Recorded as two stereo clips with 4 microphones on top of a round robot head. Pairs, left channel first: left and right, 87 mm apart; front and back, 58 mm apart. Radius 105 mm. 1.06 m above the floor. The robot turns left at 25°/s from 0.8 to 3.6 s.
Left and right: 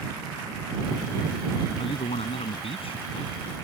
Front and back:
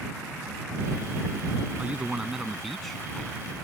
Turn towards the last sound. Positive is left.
turn(degrees=70)